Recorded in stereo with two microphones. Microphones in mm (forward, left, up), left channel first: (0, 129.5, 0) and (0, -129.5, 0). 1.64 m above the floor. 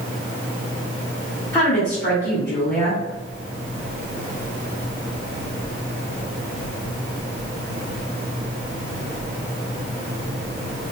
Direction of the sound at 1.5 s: 10° left (ahead or behind).